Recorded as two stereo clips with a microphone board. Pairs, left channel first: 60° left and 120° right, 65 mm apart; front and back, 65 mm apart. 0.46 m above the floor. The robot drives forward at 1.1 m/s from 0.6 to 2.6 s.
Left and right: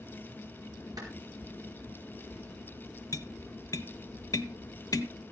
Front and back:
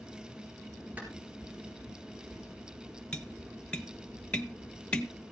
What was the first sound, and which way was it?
A clap, 115° right.